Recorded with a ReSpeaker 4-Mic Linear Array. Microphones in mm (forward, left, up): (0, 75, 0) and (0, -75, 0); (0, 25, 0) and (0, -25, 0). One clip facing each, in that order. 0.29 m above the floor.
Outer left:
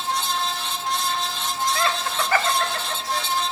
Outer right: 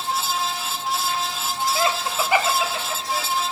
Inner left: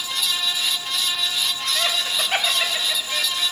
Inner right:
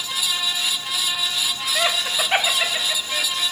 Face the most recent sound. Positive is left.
turn(degrees=0)  # may be behind; listen again after turning